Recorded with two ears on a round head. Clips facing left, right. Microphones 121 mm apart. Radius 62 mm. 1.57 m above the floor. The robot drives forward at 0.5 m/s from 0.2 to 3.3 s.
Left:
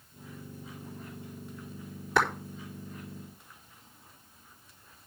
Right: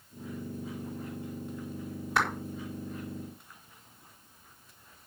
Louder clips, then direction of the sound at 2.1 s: Left 3 dB; 85° left.